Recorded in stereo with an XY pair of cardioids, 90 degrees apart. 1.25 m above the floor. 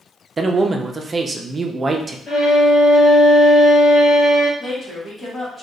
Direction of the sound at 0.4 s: 35° right.